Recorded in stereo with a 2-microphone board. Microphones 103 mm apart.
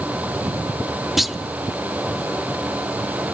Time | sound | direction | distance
1.2 | a clunk | centre (ahead or behind) | 0.7 m